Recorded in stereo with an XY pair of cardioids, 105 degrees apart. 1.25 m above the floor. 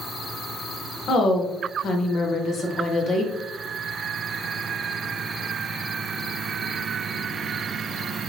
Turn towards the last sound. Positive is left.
turn(degrees=55)